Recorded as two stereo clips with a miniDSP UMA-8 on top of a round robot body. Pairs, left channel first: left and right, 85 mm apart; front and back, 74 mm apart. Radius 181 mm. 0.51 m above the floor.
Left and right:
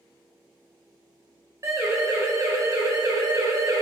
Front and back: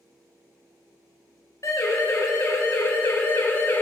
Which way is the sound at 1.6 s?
40° right.